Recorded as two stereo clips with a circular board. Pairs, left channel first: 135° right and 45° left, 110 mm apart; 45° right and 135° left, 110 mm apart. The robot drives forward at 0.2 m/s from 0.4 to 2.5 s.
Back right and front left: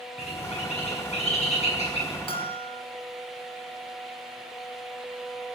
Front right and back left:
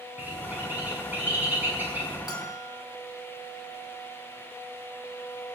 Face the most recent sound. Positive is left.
turn(degrees=-100)